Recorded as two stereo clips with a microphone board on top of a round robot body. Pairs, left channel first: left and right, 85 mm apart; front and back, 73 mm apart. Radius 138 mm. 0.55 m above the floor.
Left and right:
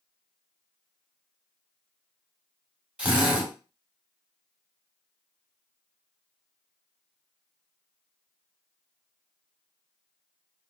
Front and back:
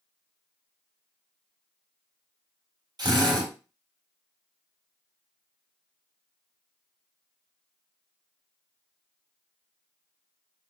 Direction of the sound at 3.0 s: 165° right.